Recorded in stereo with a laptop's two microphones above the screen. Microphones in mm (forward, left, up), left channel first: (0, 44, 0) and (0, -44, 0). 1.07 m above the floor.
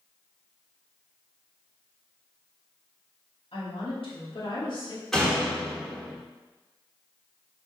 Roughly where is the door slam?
Centre.